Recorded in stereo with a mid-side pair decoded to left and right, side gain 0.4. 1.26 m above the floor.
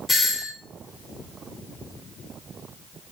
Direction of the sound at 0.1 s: 40° left.